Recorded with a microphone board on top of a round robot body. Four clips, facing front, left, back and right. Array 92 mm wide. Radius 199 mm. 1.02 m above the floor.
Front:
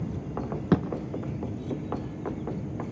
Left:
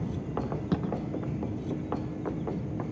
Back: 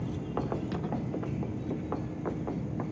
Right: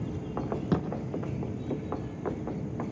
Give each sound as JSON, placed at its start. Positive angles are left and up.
{"t": 0.7, "sound": "a thud", "azimuth_deg": -5, "distance_m": 2.5}